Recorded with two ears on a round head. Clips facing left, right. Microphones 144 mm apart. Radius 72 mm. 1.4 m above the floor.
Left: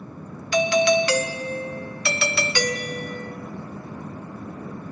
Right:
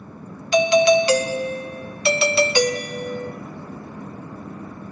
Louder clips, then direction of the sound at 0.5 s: Right 4 dB; 20° right (ahead or behind).